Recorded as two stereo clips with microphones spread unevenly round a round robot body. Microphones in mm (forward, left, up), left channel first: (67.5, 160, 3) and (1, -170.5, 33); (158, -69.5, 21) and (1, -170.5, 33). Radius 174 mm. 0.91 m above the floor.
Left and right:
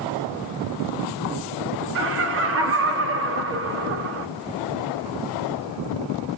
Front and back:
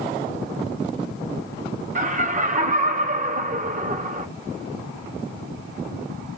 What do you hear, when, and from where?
1.9 s laughter: 135° right, 0.8 m